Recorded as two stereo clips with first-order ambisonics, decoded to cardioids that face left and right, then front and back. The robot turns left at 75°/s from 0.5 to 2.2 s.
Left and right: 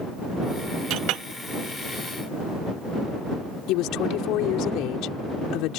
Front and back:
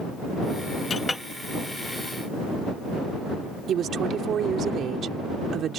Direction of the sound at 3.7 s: 120° left.